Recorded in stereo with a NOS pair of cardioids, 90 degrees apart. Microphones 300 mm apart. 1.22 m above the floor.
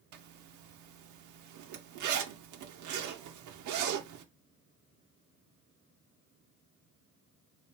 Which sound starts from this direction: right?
A zipper, at 0.1 s.